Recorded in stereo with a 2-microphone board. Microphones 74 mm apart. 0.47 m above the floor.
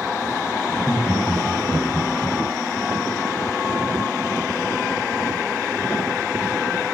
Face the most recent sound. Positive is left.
turn(degrees=0)  # may be behind; listen again after turning